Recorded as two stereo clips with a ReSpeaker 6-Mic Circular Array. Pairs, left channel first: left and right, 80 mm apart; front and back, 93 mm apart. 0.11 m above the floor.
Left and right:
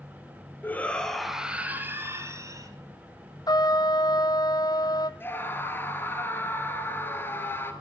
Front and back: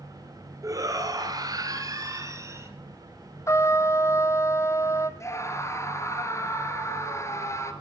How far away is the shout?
About 1.7 m.